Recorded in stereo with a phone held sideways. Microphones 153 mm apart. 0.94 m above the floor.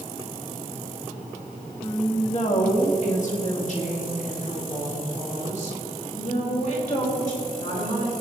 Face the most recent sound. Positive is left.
turn(degrees=55)  # may be behind; listen again after turning